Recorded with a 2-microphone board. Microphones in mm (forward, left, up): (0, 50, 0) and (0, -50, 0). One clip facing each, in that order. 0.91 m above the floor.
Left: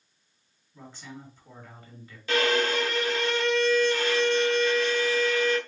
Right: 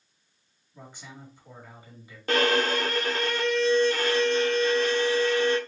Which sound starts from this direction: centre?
A man speaking, at 0.7 s.